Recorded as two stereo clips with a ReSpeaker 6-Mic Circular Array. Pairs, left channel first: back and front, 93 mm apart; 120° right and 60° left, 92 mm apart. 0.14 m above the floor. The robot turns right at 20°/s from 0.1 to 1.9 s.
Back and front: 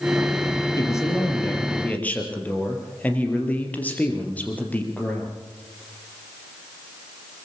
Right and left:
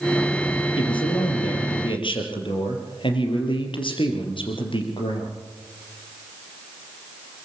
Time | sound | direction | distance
0.8 | a man speaking | 130° right | 4 m